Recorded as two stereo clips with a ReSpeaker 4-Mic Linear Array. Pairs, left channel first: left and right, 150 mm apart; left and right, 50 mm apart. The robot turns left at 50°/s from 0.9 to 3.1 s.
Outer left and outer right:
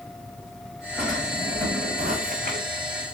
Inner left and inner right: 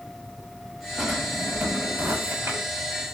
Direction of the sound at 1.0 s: 5° right.